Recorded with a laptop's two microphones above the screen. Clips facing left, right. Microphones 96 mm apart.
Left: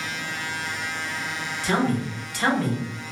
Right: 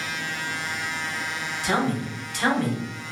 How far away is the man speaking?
About 1.0 m.